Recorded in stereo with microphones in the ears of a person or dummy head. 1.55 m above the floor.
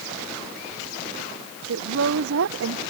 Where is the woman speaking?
70° right (ahead or behind).